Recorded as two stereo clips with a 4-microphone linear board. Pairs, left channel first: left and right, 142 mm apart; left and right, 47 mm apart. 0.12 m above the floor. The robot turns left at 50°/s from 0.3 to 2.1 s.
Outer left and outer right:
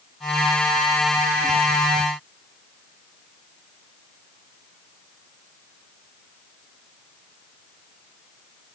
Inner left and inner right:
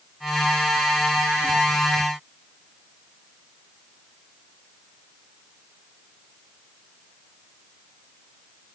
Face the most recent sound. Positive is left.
No sound to turn to.